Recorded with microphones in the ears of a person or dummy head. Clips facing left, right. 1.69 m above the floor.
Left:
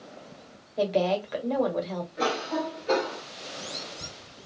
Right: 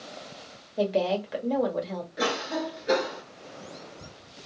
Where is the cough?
15° right (ahead or behind), 0.8 m.